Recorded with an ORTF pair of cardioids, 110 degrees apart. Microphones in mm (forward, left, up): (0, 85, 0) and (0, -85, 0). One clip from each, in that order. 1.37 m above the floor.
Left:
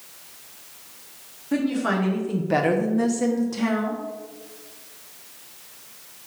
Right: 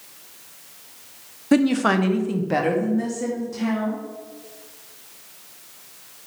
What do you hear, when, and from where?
1.5 s a woman speaking: 55° right, 0.6 m; by 4.0 s 45° left, 1.1 m